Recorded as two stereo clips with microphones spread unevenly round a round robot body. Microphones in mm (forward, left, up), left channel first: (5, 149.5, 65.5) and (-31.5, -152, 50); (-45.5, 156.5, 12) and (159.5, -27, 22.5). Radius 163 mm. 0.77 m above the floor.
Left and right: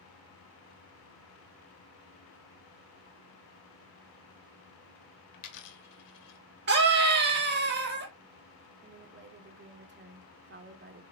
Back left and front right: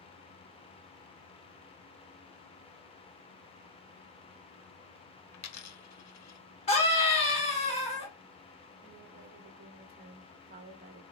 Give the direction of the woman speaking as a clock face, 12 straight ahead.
3 o'clock.